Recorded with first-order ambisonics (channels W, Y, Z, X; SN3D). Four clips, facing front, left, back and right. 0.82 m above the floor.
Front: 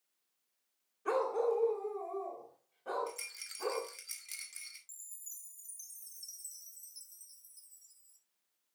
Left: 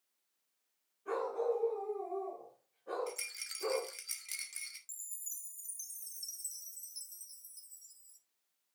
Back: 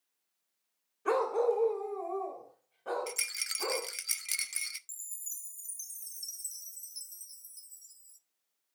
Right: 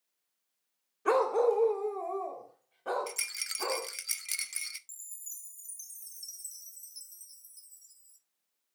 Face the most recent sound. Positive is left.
turn(degrees=180)